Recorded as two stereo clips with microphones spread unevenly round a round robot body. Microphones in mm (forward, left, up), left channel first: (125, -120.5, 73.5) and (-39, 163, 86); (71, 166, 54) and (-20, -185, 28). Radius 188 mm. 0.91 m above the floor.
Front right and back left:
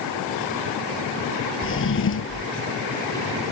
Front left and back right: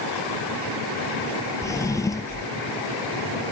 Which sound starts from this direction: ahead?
A drawer, at 1.6 s.